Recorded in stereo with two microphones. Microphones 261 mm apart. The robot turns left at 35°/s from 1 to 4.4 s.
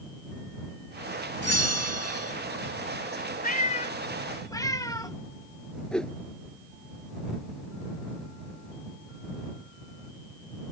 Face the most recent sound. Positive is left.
turn(degrees=5)  # may be behind; listen again after turning